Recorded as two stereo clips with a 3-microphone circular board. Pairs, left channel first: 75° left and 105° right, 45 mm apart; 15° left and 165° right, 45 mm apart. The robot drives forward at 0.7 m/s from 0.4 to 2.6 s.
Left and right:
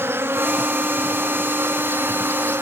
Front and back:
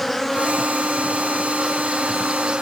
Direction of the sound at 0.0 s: 75° right.